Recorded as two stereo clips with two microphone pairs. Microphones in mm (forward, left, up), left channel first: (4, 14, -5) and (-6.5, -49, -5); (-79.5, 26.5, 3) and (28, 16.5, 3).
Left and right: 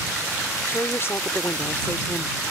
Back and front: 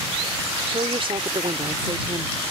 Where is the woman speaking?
30° left.